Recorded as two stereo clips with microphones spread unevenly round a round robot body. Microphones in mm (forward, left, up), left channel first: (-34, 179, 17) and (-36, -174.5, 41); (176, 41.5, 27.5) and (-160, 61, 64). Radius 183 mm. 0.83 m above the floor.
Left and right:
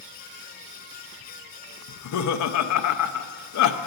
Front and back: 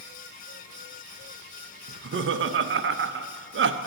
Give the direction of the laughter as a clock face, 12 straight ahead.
8 o'clock.